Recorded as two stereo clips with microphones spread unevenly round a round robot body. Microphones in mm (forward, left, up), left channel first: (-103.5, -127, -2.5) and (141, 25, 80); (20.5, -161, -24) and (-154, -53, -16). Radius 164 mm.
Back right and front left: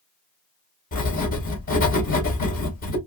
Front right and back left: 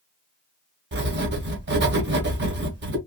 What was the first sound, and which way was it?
Writing, 165° left.